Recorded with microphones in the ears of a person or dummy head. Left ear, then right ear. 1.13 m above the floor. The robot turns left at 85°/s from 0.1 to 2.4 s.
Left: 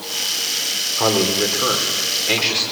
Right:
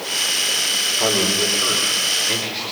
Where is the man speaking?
145° left, 3 m; by 2.6 s 25° left, 3 m.